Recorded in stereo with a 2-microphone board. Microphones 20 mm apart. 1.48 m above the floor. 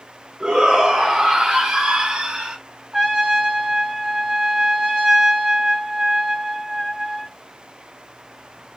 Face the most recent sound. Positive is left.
turn(degrees=-25)  # may be behind; listen again after turning